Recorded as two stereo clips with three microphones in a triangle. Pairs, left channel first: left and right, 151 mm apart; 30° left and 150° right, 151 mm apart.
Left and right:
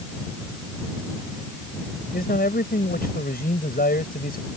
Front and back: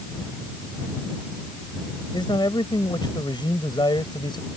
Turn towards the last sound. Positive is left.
turn(degrees=90)